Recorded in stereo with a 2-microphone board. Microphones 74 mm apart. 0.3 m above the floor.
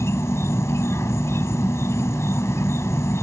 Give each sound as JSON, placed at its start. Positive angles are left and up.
{"t": 0.0, "sound": "an insect", "side_deg": 40}